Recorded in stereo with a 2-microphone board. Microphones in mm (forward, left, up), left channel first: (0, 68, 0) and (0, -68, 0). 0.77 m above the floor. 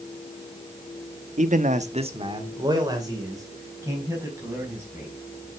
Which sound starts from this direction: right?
A man speaking, at 1.4 s.